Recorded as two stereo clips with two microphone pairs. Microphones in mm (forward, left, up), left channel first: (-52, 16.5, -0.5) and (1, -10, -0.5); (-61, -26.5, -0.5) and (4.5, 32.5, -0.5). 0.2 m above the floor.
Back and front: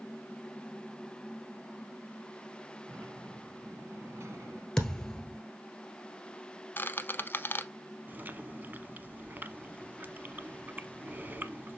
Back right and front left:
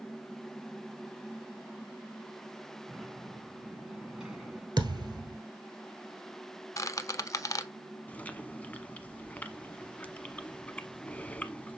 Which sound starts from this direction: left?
A thud, at 4.8 s.